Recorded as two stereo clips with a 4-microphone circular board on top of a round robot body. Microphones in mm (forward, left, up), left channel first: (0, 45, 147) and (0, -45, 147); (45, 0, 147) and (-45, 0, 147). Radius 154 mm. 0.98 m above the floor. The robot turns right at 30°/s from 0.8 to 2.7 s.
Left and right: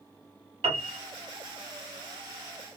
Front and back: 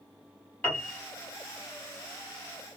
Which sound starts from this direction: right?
A piano, at 0.6 s.